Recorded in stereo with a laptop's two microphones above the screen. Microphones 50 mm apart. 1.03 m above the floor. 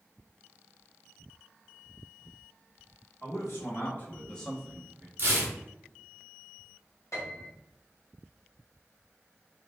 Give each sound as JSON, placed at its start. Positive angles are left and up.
{"t": 3.2, "sound": "a man speaking", "side_deg": 55, "distance_m": 1.2}
{"t": 5.2, "sound": "tearing paper", "side_deg": -45, "distance_m": 0.6}
{"t": 7.1, "sound": "a piano", "side_deg": 75, "distance_m": 1.0}